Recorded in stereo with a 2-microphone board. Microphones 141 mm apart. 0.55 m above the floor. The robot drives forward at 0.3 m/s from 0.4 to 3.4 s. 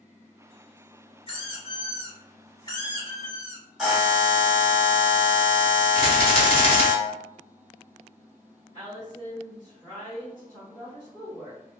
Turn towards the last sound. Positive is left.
turn(degrees=25)  # may be behind; listen again after turning